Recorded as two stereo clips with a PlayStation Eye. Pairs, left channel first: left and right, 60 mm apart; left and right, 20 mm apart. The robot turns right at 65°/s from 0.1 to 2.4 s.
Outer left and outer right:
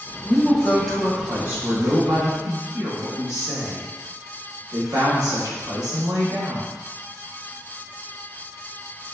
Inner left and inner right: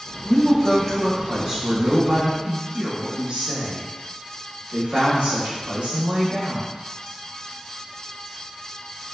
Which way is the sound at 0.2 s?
130° left.